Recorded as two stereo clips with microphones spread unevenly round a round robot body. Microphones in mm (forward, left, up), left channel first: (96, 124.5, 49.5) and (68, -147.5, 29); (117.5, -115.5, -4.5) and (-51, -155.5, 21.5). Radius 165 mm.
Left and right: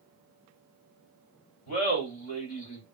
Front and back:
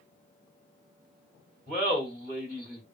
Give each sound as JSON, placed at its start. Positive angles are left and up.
{"t": 1.7, "sound": "laughter", "azimuth_deg": 110, "distance_m": 1.6}